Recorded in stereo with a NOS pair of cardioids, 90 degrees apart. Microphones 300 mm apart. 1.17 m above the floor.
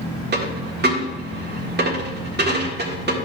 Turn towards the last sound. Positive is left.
turn(degrees=-35)